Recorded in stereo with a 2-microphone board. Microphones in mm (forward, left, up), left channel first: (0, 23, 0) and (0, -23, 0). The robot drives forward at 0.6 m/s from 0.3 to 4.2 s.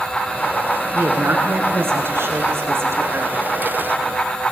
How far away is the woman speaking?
About 7 m.